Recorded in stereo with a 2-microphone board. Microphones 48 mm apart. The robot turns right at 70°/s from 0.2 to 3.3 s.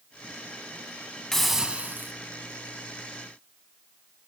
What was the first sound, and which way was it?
A hiss, 170° left.